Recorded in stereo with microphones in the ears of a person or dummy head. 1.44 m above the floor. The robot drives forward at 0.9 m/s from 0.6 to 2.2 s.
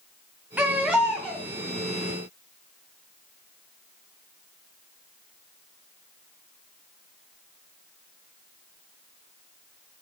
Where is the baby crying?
5° right (ahead or behind), 0.5 m; by 1.5 s centre (ahead or behind), 1.2 m.